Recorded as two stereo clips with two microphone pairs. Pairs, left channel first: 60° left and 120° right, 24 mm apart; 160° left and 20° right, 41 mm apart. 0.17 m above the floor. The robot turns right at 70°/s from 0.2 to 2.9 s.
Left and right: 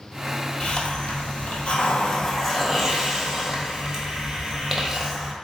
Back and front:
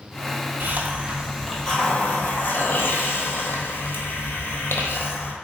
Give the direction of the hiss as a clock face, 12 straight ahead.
12 o'clock.